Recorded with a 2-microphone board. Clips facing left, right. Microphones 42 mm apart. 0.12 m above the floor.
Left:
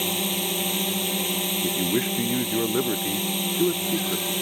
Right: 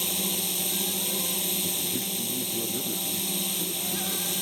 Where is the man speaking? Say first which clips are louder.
Left 8 dB; 65° left (ahead or behind).